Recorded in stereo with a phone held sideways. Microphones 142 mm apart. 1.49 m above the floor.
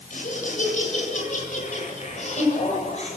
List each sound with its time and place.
0.1 s laughter: 65° left (ahead or behind), 8 m; by 3.2 s 55° left (ahead or behind), 7.5 m